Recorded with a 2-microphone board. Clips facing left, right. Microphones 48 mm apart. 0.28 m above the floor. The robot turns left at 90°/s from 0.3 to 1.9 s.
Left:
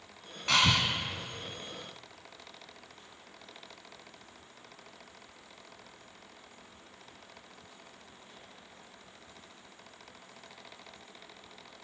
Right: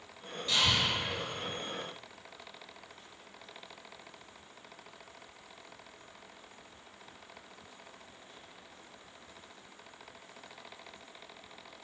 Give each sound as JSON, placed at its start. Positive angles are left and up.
{"t": 0.5, "sound": "breathing", "side_deg": 80, "distance_m": 0.5}